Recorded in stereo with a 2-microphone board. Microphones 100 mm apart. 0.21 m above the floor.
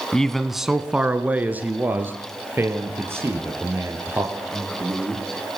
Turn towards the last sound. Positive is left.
turn(degrees=-25)  # may be behind; listen again after turning